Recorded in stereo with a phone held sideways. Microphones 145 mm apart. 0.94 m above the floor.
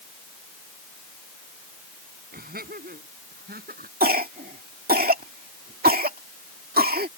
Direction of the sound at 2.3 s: 80° right.